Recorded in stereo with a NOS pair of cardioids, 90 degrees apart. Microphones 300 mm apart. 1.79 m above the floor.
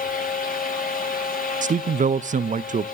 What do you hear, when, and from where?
0.0 s a fan: 30° left, 4 m
1.6 s a man speaking: 25° right, 0.5 m